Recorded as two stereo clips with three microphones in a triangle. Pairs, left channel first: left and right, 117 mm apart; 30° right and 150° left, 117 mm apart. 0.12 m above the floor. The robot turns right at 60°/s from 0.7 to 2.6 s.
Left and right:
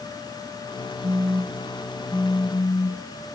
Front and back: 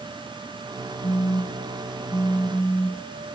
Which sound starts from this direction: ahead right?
A phone buzzing, at 1.0 s.